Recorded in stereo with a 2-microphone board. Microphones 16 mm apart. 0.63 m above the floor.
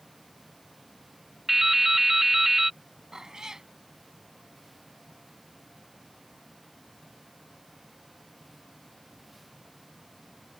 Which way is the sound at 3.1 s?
30° right (ahead or behind).